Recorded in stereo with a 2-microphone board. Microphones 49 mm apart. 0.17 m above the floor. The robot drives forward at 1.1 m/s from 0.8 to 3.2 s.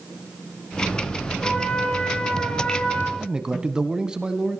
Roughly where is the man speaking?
Centre.